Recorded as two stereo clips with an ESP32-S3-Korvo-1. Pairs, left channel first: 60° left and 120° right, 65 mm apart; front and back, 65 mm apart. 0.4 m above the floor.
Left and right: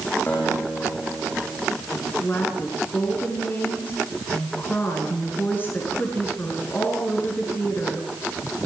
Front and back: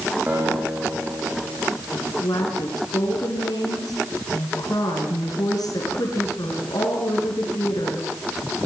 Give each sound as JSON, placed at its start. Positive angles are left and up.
{"t": 0.3, "sound": "a guitar", "azimuth_deg": 115, "distance_m": 7.0}
{"t": 1.9, "sound": "a woman speaking", "azimuth_deg": 5, "distance_m": 5.5}